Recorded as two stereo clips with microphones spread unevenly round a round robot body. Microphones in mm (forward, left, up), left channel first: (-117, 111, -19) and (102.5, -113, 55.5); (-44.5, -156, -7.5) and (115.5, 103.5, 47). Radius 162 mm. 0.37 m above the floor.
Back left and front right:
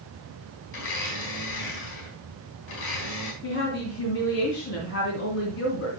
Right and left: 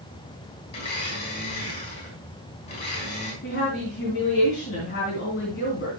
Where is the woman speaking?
Straight behind, 3 m.